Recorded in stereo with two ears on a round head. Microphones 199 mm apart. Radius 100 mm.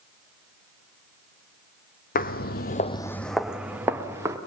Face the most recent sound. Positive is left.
turn(degrees=-15)  # may be behind; listen again after turning